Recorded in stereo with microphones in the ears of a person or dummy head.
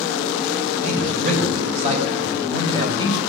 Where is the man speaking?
45° right (ahead or behind), 7 m; by 3.2 s 25° right (ahead or behind), 6 m.